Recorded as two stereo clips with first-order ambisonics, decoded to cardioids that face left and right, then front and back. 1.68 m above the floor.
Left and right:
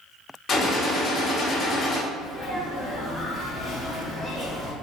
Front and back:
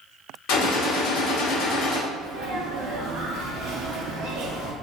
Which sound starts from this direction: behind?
A sneeze, at 2.1 s.